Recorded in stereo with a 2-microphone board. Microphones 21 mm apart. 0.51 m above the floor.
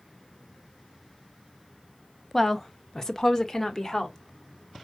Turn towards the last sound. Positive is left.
turn(degrees=25)  # may be behind; listen again after turning